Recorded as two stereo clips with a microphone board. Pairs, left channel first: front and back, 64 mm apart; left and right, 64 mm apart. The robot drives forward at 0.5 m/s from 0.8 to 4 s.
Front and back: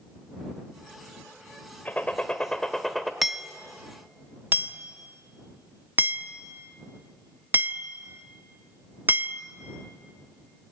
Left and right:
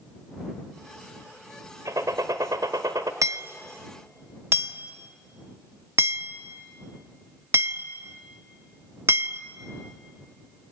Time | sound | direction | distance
1.9 | a gunshot | 65° right | 1.4 m
3.2 | hammering | 90° right | 0.6 m